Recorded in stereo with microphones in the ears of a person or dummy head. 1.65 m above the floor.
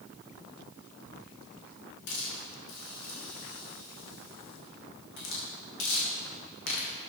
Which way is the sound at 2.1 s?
65° left (ahead or behind).